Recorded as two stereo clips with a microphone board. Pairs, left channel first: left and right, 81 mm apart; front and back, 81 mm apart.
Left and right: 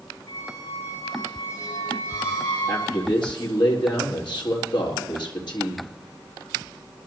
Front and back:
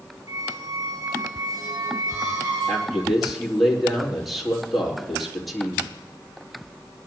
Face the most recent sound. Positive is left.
turn(degrees=90)